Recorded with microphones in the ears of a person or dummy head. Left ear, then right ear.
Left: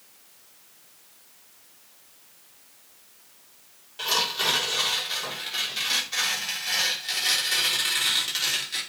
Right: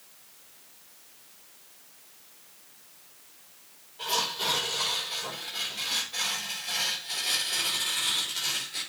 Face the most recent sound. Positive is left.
turn(degrees=65)  # may be behind; listen again after turning